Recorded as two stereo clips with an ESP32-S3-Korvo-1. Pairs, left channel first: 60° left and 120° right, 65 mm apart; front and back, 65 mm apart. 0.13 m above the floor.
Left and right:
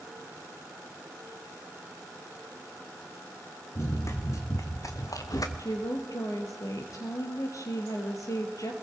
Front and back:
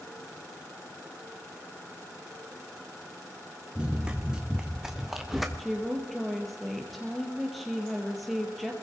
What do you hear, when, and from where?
3.8 s running footsteps: 105° left, 3 m; by 5.5 s 90° left, 2 m
5.6 s a woman speaking: 90° left, 3.5 m